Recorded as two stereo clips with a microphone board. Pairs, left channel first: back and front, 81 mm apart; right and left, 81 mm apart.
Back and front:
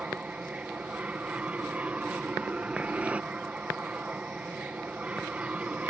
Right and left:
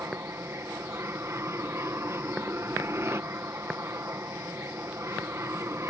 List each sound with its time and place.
0.0 s an aircraft: 65° left